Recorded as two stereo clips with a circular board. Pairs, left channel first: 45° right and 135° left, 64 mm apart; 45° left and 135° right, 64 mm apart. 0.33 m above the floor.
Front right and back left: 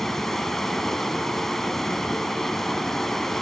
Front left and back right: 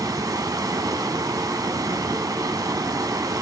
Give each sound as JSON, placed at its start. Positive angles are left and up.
{"t": 0.0, "sound": "running water", "azimuth_deg": -130, "distance_m": 0.8}